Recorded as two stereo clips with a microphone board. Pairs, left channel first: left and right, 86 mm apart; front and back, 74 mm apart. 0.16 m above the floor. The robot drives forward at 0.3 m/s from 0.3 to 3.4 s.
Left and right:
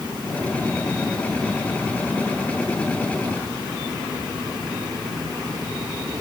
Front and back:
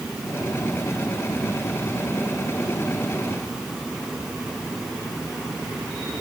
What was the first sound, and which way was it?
Only background noise.